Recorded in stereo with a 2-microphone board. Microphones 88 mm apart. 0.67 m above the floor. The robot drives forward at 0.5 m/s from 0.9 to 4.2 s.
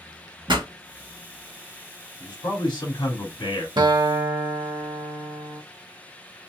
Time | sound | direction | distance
0.5 | a pop | 60° right (ahead or behind) | 1.1 m
2.2 | a man speaking | 50° left (ahead or behind) | 1.6 m
3.8 | a guitar | 55° right (ahead or behind) | 0.5 m